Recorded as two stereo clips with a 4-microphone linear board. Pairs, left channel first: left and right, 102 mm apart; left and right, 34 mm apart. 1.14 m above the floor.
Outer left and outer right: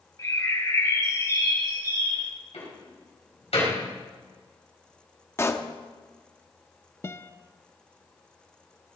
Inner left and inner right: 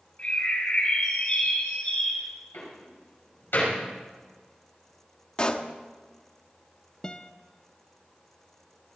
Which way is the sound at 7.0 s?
25° left (ahead or behind).